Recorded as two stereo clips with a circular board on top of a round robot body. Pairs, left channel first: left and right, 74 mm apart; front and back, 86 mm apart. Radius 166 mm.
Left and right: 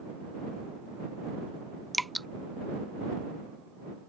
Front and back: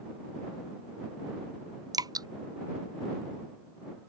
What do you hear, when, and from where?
1.9 s dripping: straight behind